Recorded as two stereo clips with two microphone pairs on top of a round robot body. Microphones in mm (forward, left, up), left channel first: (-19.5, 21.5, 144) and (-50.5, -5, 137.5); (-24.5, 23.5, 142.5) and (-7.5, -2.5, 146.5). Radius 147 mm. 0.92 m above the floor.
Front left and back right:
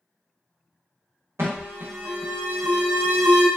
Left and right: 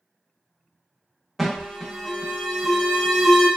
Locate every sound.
1.4 s an alarm: 150° right, 0.9 m